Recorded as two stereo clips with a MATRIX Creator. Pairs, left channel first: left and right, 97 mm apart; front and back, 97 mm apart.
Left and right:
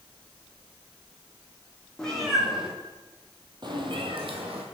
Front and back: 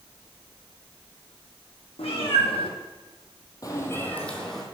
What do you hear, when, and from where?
2.0 s a cat meowing: 5° left, 2 m; by 4.6 s 90° right, 1.9 m